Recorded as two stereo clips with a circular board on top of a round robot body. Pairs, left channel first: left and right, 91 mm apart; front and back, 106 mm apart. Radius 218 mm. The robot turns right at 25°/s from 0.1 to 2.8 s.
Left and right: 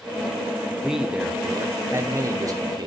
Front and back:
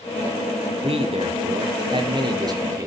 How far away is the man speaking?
About 1.9 m.